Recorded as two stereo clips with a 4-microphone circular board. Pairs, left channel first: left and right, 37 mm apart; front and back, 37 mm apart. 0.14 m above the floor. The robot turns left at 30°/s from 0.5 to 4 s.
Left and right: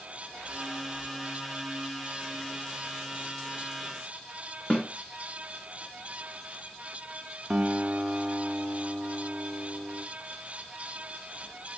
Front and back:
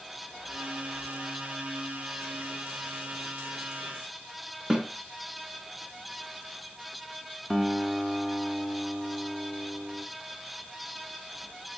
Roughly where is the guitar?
Right.